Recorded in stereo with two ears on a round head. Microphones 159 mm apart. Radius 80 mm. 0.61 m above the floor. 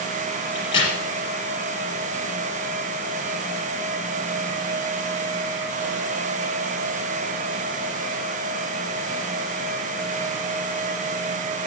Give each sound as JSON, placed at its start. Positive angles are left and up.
{"t": 0.6, "sound": "a crack", "side_deg": 30, "distance_m": 5.0}